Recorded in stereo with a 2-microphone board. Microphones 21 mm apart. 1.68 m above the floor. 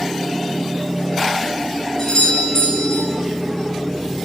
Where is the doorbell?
40° left (ahead or behind), 10 m.